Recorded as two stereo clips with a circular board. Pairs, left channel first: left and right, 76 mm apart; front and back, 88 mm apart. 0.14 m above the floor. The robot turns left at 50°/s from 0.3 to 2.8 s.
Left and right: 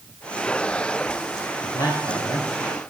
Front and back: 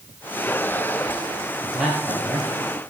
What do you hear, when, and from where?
1.6 s a man speaking: 110° left, 3.5 m; by 2.5 s 65° left, 3.5 m